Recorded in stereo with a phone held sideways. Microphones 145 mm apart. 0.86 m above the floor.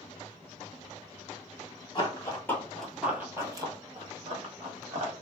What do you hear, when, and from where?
1.9 s running footsteps: 30° left (ahead or behind), 1.1 m; by 5.1 s 55° right (ahead or behind), 1.6 m